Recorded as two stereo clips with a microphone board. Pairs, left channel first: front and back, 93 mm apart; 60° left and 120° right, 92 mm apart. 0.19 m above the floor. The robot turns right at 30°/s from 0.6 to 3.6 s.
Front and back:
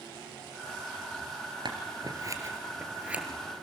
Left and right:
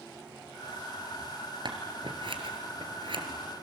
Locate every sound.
1.6 s scissors: 150° right, 2.5 m; by 3.2 s 100° right, 2.5 m